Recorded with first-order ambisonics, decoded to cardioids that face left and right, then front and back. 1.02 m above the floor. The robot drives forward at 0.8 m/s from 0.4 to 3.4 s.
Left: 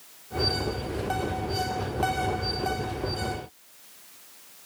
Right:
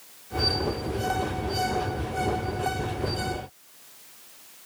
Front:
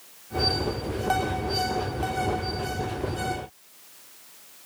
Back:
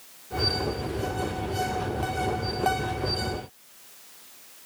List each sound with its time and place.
Only background noise.